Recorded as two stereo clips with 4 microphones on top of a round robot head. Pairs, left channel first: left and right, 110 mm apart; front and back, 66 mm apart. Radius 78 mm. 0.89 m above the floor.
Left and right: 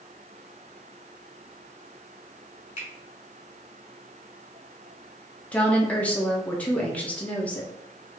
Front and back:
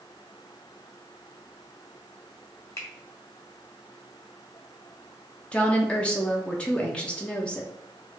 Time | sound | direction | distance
2.8 | a finger snap | 45° left | 1.3 m
5.5 | a woman speaking | 40° left | 0.6 m